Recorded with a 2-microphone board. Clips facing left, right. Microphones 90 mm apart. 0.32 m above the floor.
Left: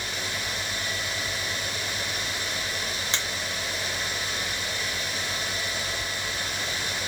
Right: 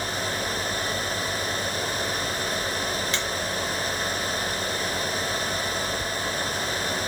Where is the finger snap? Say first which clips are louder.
Right 3 dB; 25° left (ahead or behind), 0.7 m.